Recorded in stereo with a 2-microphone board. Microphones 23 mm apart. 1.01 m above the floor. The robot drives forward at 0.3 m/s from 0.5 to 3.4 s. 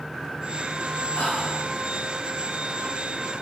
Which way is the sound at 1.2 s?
70° left (ahead or behind).